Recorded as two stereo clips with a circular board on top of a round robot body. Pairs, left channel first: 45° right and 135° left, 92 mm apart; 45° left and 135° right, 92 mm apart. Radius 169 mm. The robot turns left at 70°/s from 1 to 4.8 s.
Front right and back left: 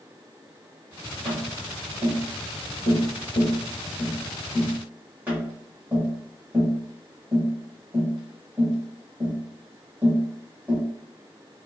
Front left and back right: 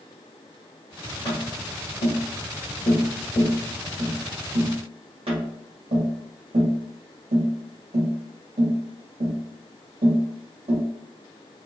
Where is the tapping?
95° left, 1.0 m; by 10.8 s 150° right, 1.0 m.